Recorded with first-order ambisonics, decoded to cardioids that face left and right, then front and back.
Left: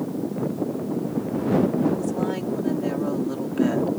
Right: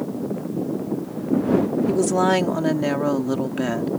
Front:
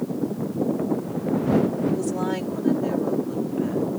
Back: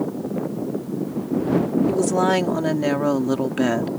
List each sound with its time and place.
1.9 s a woman speaking: 120° right; by 3.9 s 165° right